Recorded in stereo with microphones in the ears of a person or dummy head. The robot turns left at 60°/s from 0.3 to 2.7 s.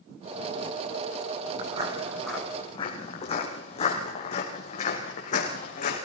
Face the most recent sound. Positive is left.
turn(degrees=50)  # may be behind; listen again after turning